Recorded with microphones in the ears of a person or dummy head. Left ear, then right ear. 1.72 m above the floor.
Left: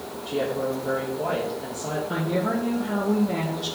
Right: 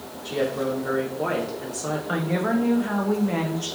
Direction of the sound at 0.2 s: 70° right (ahead or behind).